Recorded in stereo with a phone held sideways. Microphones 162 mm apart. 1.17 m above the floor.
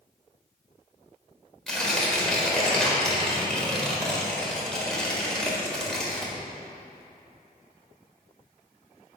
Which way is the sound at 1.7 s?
5° left (ahead or behind).